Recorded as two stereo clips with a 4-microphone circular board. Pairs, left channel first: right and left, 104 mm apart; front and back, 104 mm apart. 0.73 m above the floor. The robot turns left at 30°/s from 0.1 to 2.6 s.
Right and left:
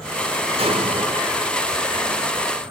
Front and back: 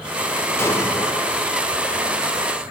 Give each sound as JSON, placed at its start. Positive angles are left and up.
{"t": 0.6, "sound": "an explosion", "azimuth_deg": 65, "distance_m": 2.0}